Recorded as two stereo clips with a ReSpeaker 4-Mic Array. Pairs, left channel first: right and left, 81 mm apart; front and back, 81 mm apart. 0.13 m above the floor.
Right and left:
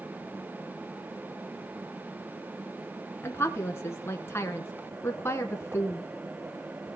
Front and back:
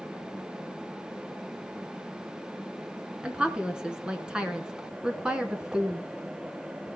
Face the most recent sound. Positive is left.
turn(degrees=-110)